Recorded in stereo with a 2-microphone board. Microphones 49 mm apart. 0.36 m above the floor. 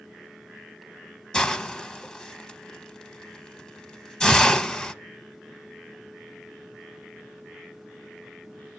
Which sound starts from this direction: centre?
A hiss, at 1.3 s.